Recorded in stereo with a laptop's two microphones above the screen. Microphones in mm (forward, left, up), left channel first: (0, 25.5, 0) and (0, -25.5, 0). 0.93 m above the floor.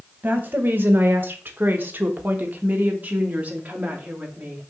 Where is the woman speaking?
35° right (ahead or behind), 1.0 m; by 4.7 s 30° right (ahead or behind), 2.5 m.